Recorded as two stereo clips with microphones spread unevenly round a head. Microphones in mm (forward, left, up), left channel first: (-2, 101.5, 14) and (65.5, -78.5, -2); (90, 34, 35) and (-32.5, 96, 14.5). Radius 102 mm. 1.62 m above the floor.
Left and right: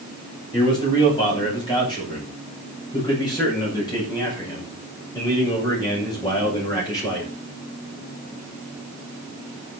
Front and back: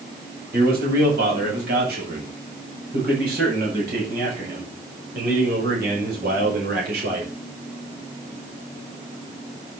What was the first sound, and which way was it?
A man speaking, straight behind.